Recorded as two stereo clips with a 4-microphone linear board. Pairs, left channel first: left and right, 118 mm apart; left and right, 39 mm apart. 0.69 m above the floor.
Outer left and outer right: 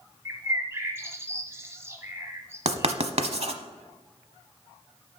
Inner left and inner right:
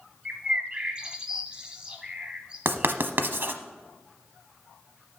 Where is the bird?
20° right (ahead or behind), 1.3 m.